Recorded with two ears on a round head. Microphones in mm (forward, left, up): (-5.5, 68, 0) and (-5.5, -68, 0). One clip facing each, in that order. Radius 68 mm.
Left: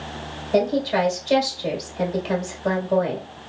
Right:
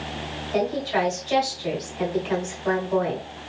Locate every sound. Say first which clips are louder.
0.5 s a woman speaking: left 4 dB; 55° left (ahead or behind), 1.8 m